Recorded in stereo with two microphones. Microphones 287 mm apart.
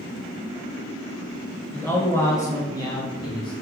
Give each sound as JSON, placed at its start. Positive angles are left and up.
{"t": 1.7, "sound": "a man speaking", "side_deg": 5, "distance_m": 1.5}